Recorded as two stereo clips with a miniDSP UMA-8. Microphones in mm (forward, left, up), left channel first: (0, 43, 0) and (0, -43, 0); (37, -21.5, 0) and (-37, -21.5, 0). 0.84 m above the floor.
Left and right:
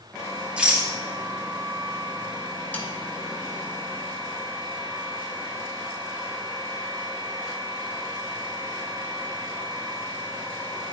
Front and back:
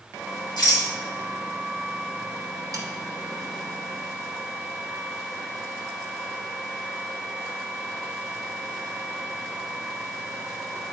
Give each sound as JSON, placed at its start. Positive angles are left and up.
{"t": 0.6, "sound": "a rattle", "azimuth_deg": -10, "distance_m": 2.5}
{"t": 2.7, "sound": "a snare drum", "azimuth_deg": 160, "distance_m": 1.2}